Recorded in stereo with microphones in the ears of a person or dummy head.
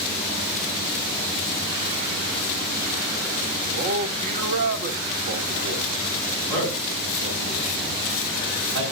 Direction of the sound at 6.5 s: 65° right (ahead or behind).